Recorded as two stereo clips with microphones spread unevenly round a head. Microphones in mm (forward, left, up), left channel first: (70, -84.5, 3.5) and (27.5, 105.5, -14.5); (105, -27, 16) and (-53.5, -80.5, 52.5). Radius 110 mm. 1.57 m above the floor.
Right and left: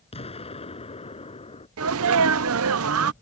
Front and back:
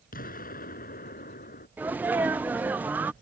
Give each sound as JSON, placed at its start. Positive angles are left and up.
{"t": 0.1, "sound": "an explosion", "azimuth_deg": -20}
{"t": 1.8, "sound": "a sneeze", "azimuth_deg": 120}